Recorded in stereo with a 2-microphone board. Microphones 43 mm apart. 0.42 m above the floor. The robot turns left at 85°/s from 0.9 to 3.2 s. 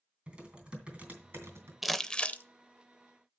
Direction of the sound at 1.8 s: 175° right.